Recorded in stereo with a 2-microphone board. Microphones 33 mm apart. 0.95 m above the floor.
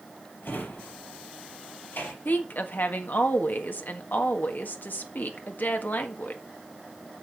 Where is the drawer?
80° left, 4.5 m.